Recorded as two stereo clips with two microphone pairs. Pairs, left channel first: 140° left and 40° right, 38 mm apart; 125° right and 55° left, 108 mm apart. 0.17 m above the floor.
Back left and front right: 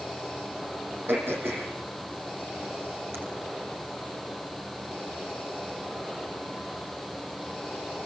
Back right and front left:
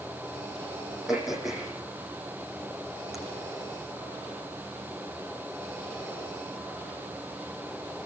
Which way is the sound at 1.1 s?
35° right.